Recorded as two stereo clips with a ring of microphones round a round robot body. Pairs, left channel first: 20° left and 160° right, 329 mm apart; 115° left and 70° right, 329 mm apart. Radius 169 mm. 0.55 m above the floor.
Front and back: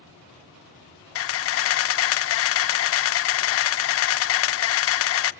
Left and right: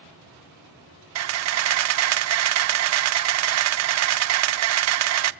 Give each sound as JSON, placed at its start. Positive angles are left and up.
{"t": 1.1, "sound": "a camera shutter", "azimuth_deg": -25, "distance_m": 0.6}